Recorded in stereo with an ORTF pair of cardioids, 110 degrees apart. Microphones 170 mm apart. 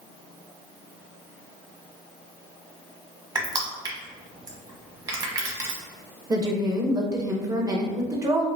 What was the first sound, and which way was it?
Crushing, 25° right.